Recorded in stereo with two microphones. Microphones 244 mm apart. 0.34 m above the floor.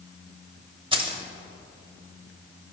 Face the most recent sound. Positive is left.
turn(degrees=-20)  # may be behind; listen again after turning